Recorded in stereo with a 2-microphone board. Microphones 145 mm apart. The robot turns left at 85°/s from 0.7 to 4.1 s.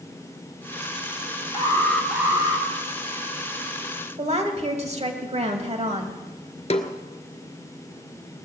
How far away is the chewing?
No chewing in this recording.